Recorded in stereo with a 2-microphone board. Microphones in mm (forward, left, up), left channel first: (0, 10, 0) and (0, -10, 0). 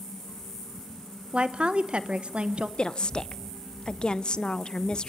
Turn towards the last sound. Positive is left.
turn(degrees=45)  # may be behind; listen again after turning